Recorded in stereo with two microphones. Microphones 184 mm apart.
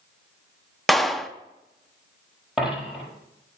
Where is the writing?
No writing in this recording.